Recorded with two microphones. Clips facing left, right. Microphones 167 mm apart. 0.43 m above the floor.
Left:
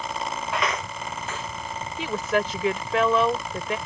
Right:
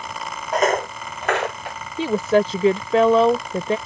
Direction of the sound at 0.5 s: 40° right (ahead or behind).